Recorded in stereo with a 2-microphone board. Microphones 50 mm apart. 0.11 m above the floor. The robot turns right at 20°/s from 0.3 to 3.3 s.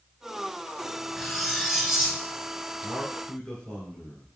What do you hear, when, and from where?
1.2 s cutlery clinking: centre (ahead or behind), 0.8 m; by 2.2 s 10° right (ahead or behind), 0.8 m
2.8 s a man speaking: 15° left (ahead or behind), 1.7 m; by 4.3 s 10° left (ahead or behind), 1.7 m